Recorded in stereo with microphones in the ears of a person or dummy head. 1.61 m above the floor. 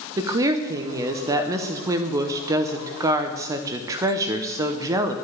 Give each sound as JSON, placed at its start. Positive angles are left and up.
{"t": 0.2, "sound": "a woman speaking", "side_deg": -15, "distance_m": 0.7}